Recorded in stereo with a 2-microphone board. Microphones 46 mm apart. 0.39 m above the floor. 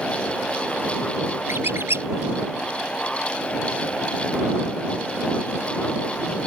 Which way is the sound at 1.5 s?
65° right (ahead or behind).